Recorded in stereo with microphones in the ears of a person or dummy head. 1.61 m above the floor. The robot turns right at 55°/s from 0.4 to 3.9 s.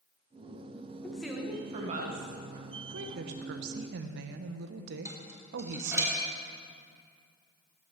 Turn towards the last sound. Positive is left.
turn(degrees=-20)  # may be behind; listen again after turning